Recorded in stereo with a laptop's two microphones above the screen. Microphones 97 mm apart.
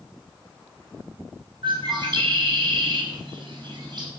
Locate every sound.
1.6 s a bird: 50° right (ahead or behind), 5.5 m